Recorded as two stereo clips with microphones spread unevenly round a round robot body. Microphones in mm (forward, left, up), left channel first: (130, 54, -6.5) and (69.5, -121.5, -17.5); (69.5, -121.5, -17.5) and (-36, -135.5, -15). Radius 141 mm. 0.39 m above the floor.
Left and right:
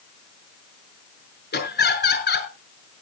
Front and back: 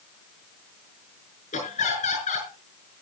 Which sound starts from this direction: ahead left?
Laughter, at 1.5 s.